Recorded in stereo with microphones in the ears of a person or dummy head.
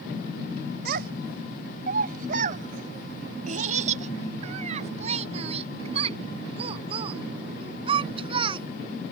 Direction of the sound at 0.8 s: 55° right (ahead or behind).